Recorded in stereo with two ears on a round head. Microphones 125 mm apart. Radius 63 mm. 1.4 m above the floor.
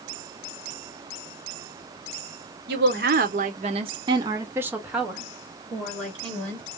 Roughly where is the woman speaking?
Right.